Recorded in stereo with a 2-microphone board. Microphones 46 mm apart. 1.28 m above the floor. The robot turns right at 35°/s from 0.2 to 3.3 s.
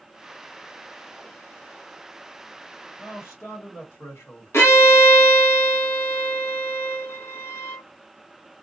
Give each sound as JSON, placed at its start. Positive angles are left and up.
{"t": 3.0, "sound": "a man speaking", "side_deg": 65, "distance_m": 1.5}
{"t": 4.5, "sound": "a violin", "side_deg": 70, "distance_m": 1.2}